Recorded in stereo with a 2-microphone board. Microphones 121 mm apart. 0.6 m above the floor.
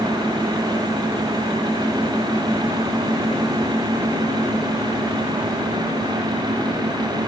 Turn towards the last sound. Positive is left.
No sound to turn to.